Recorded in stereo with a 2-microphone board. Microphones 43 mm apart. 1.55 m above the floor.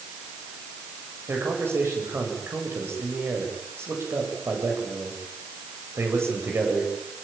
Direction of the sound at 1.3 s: 75° right (ahead or behind).